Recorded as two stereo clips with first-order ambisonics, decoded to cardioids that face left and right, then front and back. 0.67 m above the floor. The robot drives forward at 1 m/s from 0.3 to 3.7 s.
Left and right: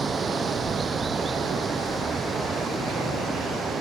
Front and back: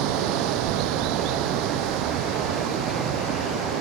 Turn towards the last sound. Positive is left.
turn(degrees=-160)